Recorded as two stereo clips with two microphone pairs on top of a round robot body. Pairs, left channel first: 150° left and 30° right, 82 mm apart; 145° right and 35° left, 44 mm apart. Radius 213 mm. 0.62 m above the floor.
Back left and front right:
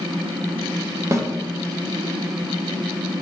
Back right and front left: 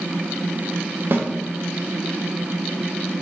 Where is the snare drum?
15° left, 0.7 m.